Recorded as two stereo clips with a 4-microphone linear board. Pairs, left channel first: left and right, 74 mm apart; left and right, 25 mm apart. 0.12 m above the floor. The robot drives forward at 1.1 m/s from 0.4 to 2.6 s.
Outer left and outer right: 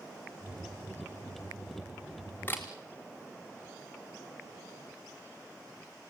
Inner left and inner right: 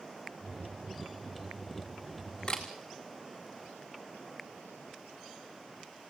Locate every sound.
2.5 s a camera shutter: 25° left (ahead or behind), 3.5 m; by 2.6 s 30° left (ahead or behind), 3 m